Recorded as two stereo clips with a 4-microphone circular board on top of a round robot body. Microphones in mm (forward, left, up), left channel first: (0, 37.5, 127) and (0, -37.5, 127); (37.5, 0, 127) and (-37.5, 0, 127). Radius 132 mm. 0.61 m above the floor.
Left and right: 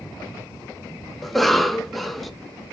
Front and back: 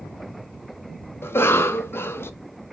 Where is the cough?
Straight ahead, 0.6 m.